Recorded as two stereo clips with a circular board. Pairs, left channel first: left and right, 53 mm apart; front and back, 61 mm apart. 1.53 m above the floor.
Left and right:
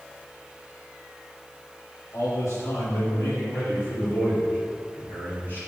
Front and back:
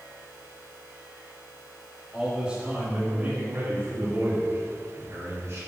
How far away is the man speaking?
About 3.5 m.